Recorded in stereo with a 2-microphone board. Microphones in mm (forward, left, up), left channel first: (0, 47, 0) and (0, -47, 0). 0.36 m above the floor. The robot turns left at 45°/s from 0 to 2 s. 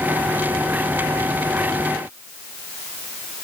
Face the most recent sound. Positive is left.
No sound to turn to.